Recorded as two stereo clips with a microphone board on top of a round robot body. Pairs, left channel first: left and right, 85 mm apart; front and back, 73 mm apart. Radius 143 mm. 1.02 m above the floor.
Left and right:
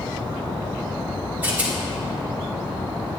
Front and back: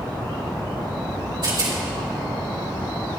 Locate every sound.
1.4 s a rattle: 160° right, 2.5 m